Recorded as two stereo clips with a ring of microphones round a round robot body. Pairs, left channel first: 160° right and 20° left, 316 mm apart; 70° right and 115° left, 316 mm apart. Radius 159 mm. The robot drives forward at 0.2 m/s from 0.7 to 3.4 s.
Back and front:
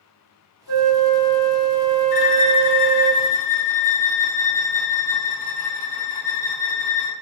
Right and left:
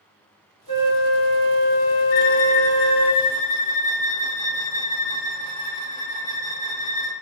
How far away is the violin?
About 0.5 m.